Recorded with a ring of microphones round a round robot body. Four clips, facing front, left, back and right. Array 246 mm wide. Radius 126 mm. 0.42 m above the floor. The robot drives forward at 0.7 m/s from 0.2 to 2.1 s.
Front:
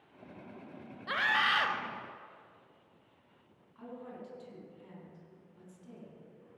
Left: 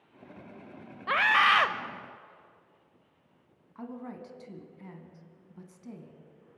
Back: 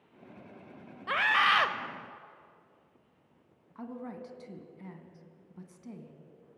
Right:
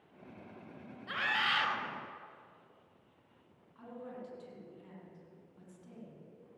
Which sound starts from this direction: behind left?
A woman speaking, at 3.8 s.